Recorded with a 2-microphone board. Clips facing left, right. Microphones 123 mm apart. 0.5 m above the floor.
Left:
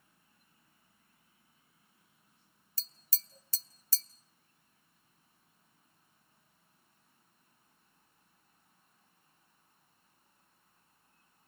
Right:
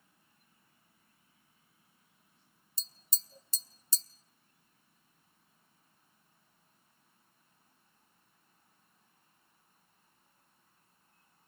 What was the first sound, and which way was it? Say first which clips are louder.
Tapping: right 1 dB; 20° right (ahead or behind).